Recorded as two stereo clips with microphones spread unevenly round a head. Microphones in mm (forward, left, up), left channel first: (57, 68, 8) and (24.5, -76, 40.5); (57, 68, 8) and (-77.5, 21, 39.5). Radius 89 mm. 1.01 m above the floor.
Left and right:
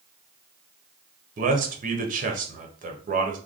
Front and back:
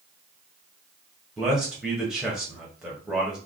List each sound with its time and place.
1.4 s a man speaking: 70° right, 1.0 m